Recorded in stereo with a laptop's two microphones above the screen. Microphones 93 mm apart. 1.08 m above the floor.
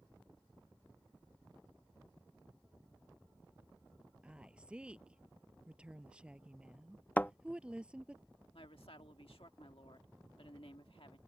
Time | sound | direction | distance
4.2 | a woman speaking | 15° right (ahead or behind) | ?
7.2 | a thud | 20° left (ahead or behind) | ?
8.5 | a woman speaking | 85° left | ?